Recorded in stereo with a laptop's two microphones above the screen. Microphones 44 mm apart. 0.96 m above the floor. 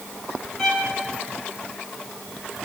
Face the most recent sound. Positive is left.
turn(degrees=10)  # may be behind; listen again after turning